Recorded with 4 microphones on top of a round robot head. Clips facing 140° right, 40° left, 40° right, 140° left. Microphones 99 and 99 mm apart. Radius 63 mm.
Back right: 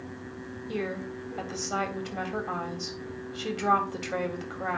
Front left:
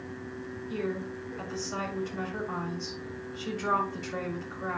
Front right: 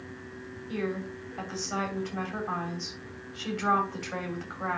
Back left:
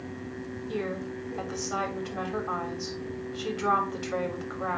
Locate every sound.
0.7 s a woman speaking: 145° right, 3.5 m